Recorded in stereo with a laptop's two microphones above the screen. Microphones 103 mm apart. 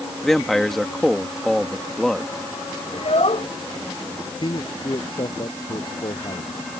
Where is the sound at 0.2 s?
5° left (ahead or behind).